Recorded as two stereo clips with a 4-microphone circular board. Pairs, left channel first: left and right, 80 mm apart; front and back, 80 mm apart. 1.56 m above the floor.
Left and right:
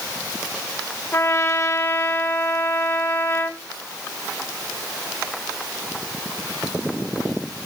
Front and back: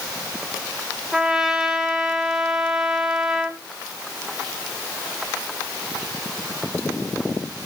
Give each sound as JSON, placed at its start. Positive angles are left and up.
{"t": 1.1, "sound": "a trumpet", "azimuth_deg": 105, "distance_m": 1.5}